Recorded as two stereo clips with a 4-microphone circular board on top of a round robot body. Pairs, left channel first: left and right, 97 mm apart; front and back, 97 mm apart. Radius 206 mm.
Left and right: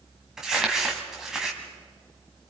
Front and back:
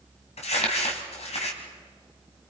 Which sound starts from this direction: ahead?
Crumpling, at 0.4 s.